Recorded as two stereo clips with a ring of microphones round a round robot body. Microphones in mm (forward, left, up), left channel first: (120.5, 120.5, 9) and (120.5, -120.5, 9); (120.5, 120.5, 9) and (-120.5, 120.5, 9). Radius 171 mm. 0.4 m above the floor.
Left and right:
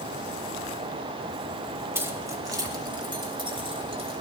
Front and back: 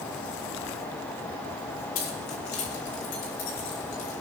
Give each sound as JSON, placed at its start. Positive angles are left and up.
{"t": 1.9, "sound": "keys jangling", "azimuth_deg": -10, "distance_m": 3.0}